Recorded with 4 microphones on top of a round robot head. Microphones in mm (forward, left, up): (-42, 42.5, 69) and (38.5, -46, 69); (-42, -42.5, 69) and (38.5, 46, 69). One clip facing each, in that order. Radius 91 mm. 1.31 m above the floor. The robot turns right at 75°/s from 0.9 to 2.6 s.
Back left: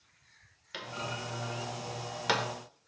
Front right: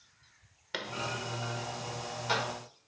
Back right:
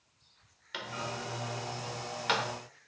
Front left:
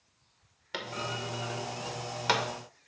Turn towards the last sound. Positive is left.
turn(degrees=125)